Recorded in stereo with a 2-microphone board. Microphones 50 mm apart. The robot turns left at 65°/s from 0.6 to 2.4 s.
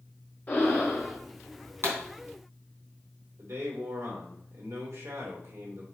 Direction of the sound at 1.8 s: 50° right (ahead or behind).